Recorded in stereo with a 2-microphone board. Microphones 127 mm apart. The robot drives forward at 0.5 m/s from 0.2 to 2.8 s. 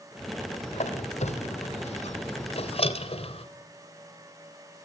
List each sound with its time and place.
0.7 s a squeak: 65° left (ahead or behind), 2 m; by 3.5 s 50° left (ahead or behind), 2.5 m